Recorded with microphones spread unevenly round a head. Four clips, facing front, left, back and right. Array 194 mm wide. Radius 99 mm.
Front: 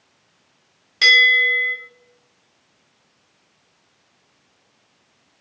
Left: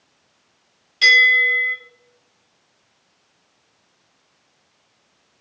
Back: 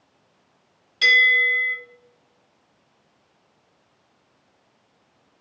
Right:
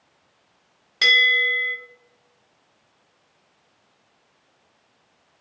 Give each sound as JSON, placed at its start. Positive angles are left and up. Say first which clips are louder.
{"t": 1.0, "sound": "a bell", "louder": "left 4 dB, front 2 dB", "azimuth_deg": -50, "distance_m": 1.0}